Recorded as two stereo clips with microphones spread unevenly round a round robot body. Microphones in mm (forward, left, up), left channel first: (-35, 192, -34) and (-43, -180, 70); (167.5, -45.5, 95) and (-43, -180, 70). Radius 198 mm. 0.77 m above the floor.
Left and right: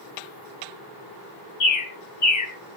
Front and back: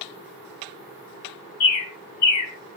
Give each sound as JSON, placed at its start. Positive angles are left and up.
{"t": 1.6, "sound": "a bird", "azimuth_deg": 35, "distance_m": 1.4}